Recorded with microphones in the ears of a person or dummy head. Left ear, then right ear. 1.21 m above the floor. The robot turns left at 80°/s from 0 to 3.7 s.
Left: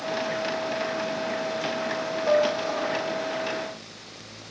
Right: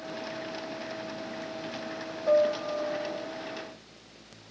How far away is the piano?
About 0.6 m.